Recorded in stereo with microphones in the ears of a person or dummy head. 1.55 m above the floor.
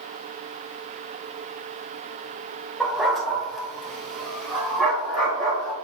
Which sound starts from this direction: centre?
A dog barking, at 2.8 s.